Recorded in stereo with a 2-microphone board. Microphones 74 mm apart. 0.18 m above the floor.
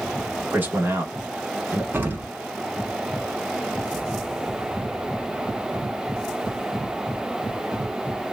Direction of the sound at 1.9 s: 30° right (ahead or behind).